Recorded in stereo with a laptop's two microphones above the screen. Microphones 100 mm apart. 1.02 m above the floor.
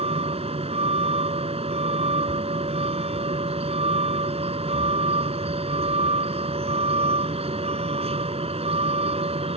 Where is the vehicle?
85° right.